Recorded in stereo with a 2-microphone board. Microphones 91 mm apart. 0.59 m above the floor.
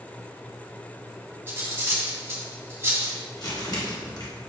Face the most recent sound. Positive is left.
turn(degrees=45)  # may be behind; listen again after turning